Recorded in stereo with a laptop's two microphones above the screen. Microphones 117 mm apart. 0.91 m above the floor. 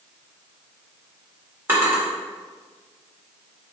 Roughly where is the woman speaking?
No woman speaking in this recording.